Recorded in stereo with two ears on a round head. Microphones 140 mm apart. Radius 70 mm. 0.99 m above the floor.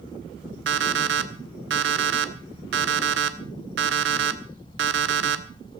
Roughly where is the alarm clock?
Right.